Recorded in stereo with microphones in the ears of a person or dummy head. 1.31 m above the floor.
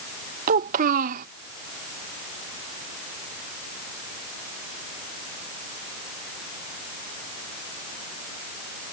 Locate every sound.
0.5 s a child speaking: 45° right (ahead or behind)